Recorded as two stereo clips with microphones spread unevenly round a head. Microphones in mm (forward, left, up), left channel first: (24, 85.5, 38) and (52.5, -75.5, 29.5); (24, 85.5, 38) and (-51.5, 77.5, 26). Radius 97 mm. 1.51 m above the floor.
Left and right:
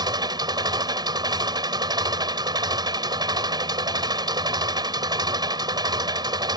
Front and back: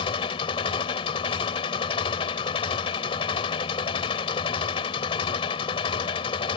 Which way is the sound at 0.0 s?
15° right.